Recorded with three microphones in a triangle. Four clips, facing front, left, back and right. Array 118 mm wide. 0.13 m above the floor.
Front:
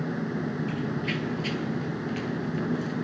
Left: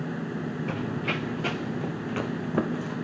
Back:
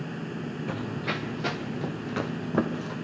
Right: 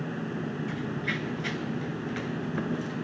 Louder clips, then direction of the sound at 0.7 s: Left 2 dB, front 2 dB; 135° left.